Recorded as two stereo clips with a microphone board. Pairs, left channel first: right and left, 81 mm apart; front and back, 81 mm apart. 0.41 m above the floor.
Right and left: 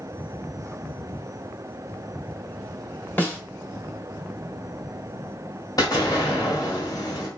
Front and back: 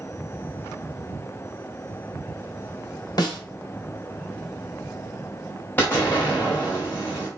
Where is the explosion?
60° right, 1.7 m.